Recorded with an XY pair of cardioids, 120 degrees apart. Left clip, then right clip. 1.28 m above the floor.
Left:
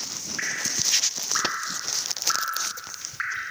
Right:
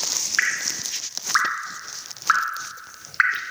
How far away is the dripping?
About 0.7 m.